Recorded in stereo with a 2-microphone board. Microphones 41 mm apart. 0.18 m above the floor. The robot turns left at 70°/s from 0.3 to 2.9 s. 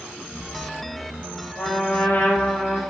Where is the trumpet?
85° left, 8.5 m; by 2.8 s straight ahead, 8.5 m.